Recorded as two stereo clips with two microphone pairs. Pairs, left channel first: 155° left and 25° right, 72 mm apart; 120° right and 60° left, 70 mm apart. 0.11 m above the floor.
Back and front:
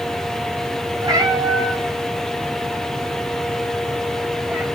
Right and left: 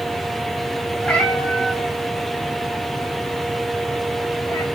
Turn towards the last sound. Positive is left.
turn(degrees=-90)